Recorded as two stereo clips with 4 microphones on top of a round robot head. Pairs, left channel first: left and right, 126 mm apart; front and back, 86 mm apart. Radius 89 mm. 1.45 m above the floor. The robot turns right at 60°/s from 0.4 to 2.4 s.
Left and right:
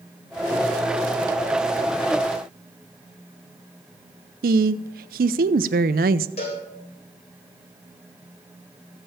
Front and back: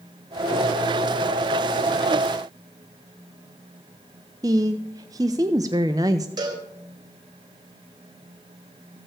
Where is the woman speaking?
115° right, 0.5 m.